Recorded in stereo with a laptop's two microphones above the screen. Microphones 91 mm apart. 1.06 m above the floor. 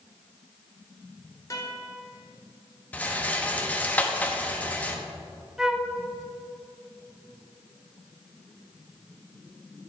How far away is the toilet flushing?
I don't hear a toilet flushing.